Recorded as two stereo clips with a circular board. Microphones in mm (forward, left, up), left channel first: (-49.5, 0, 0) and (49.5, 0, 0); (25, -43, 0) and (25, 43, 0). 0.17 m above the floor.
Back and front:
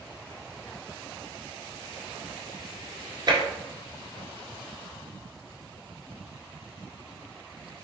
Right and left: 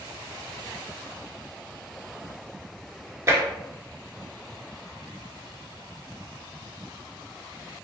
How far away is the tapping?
About 1.6 m.